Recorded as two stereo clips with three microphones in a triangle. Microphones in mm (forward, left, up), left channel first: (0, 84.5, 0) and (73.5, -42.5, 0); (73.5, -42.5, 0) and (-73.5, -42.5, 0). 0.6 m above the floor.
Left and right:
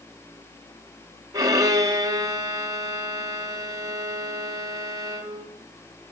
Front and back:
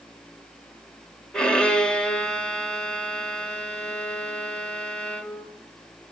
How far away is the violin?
About 1.1 m.